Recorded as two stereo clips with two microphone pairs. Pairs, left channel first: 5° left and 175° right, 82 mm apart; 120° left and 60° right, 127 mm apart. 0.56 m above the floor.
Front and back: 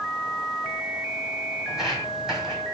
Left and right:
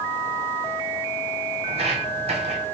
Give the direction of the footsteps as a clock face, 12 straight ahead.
3 o'clock.